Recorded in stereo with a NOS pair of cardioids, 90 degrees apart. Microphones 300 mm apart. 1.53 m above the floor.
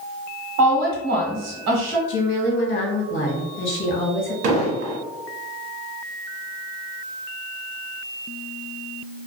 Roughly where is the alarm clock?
No alarm clock in this recording.